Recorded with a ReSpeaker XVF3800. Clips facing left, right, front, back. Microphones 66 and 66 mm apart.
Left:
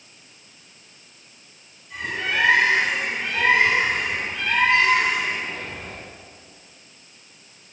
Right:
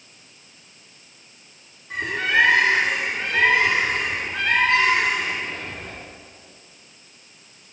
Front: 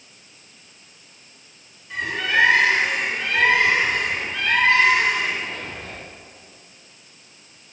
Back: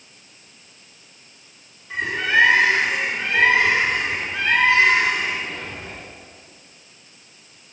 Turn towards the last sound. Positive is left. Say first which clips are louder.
# right 5 dB, back 2 dB
turn(degrees=-115)